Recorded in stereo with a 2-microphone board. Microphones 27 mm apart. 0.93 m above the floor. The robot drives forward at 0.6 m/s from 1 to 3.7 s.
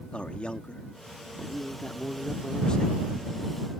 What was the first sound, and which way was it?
A man speaking, 45° left (ahead or behind).